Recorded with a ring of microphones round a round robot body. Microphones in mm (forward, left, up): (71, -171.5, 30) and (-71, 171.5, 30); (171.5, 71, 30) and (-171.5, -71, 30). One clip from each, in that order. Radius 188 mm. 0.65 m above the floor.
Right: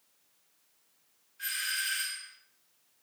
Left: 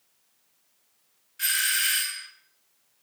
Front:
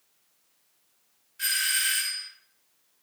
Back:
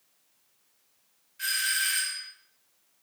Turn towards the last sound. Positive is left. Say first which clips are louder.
# left 8 dB, front 1 dB
turn(degrees=100)